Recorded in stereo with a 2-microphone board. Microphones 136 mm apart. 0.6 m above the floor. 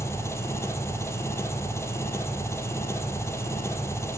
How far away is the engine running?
About 3.5 m.